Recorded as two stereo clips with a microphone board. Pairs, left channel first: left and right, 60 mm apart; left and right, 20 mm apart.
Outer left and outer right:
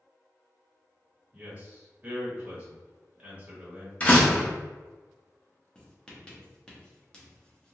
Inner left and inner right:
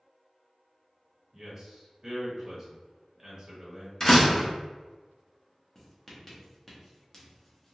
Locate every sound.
1.3 s a man speaking: 20° right (ahead or behind), 1.6 m
4.0 s a door slam: 25° left (ahead or behind), 0.9 m
5.8 s writing: 15° left (ahead or behind), 0.9 m